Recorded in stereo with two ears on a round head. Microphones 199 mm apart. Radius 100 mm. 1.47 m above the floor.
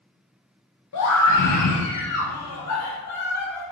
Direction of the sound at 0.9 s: 85° left.